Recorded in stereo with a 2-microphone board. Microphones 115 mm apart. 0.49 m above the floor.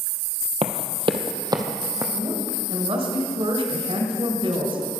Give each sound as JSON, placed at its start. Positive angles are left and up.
{"t": 0.6, "sound": "running footsteps", "side_deg": -60, "distance_m": 0.9}
{"t": 2.1, "sound": "a woman speaking", "side_deg": -55, "distance_m": 2.5}